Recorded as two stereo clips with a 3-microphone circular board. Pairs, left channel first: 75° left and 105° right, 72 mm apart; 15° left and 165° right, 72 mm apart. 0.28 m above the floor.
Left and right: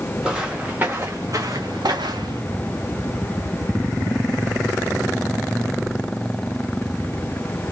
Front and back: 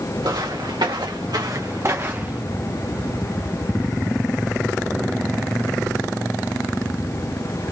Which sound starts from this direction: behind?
Footsteps, at 0.2 s.